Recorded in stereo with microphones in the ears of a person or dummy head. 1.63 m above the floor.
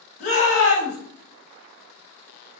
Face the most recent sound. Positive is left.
turn(degrees=65)  # may be behind; listen again after turning